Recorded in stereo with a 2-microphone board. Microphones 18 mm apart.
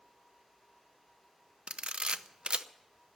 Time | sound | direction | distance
1.7 | a camera shutter | 65° right (ahead or behind) | 0.7 m